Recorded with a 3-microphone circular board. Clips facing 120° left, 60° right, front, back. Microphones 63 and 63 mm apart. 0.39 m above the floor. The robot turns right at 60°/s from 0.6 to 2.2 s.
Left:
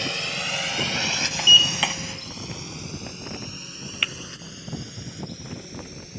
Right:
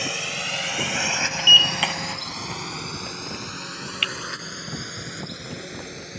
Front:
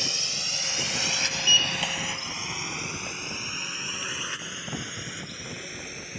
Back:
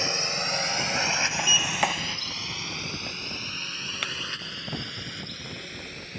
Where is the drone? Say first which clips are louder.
Even, back 6 dB; 140° right; by 6.2 s 80° right.